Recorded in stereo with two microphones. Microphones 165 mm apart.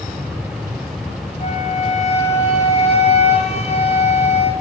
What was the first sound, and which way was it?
A flute, 45° left (ahead or behind).